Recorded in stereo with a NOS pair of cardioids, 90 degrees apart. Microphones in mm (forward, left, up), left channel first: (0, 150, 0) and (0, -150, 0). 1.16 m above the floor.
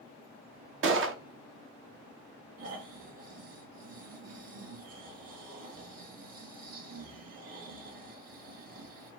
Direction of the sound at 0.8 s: 45° right.